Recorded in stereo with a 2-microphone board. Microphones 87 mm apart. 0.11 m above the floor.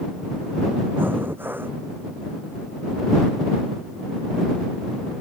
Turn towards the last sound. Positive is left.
turn(degrees=-25)  # may be behind; listen again after turning